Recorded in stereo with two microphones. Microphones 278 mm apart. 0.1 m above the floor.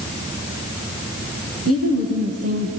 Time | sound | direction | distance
1.6 | a woman speaking | 55° right (ahead or behind) | 4 m